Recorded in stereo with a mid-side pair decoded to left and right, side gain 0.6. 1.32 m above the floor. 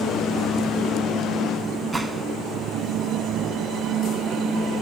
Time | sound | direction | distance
1.9 | a gunshot | 20° right | 1.6 m